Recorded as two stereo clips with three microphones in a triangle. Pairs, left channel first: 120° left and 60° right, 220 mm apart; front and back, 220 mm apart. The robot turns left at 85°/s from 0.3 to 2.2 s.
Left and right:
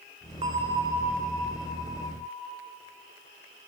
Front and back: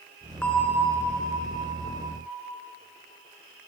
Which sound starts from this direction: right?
A bell, at 0.4 s.